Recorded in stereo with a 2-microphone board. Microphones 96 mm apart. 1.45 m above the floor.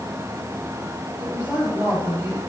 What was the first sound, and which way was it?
A woman speaking, 15° right (ahead or behind).